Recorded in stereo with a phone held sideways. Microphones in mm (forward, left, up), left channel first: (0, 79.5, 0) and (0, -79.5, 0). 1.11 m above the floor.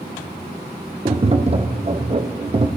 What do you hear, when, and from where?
1.1 s tapping: 35° right (ahead or behind), 0.8 m